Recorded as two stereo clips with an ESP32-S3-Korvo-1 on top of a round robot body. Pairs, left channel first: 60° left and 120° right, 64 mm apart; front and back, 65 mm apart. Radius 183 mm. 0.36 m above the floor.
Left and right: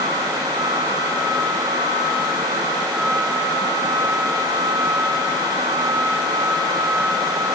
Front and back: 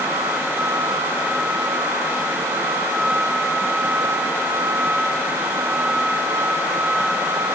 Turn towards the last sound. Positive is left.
No sound to turn to.